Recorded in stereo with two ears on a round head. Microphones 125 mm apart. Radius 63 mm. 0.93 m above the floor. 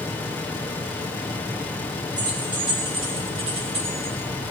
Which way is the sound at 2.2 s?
35° right (ahead or behind).